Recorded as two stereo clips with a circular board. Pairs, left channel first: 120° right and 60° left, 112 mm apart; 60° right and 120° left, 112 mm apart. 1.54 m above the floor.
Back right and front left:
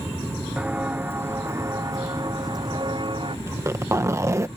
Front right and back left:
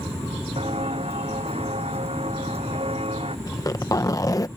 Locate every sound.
0.6 s footsteps: 135° left; by 3.4 s 95° left
3.5 s a zipper: 5° right